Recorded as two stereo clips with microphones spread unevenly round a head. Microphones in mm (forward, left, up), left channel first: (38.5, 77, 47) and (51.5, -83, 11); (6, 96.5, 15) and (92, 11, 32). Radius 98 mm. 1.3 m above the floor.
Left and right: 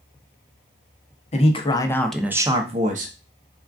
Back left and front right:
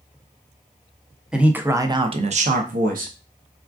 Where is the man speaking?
40° left, 0.8 m; by 3.1 s 50° right, 0.8 m.